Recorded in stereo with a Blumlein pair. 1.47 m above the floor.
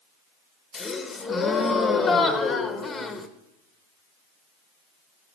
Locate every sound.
0.7 s a gasp: 15° left, 1.0 m